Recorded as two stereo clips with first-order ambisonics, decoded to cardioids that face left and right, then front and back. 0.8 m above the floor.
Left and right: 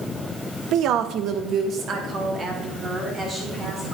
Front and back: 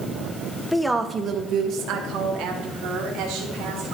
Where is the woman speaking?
80° right, 0.6 m; by 4.0 s 160° right, 2.5 m.